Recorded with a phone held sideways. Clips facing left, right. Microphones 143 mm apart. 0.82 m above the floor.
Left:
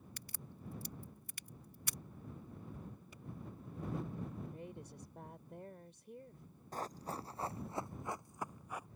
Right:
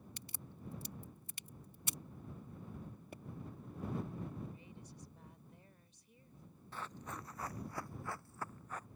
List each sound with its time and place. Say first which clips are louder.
0.2 s a crack: even; 25° right (ahead or behind)
3.1 s a pop: right 6 dB; 60° right (ahead or behind)
4.5 s a woman speaking: left 5 dB; 75° left (ahead or behind)
6.7 s running footsteps: left 4 dB; 45° left (ahead or behind); by 8.9 s 10° left (ahead or behind)